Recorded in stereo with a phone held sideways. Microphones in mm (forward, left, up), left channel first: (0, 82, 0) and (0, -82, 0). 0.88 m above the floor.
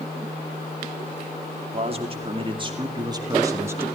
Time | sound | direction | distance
1.7 | a man speaking | 40° right (ahead or behind) | 2.5 m